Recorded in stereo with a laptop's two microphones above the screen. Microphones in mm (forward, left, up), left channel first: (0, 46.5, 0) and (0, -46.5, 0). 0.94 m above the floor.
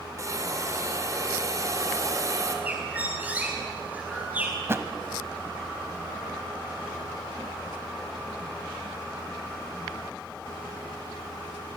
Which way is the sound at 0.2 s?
35° right (ahead or behind).